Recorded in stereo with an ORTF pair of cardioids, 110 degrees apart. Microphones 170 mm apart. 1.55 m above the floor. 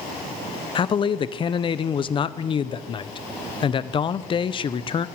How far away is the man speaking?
About 0.6 m.